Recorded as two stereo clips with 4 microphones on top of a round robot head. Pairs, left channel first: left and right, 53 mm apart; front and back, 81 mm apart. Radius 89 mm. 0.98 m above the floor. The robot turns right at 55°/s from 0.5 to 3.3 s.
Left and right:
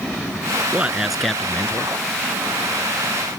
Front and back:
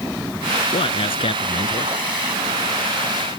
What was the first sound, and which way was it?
A man speaking, 25° right.